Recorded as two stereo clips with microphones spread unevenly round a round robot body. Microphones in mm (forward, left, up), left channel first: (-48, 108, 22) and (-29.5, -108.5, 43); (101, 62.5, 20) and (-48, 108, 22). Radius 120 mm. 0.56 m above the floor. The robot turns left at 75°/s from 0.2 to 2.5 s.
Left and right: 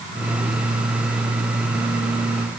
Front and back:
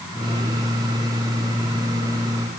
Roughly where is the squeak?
I don't hear a squeak.